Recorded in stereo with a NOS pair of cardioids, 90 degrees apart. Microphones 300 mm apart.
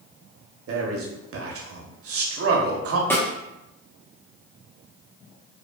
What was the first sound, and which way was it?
A man speaking, 50° right.